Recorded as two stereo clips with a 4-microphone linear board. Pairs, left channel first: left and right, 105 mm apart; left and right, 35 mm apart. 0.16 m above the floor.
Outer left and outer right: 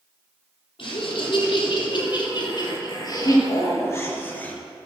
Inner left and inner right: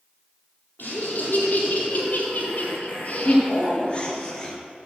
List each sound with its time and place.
0.8 s laughter: 65° left (ahead or behind), 6 m; by 4.6 s 15° left (ahead or behind), 3 m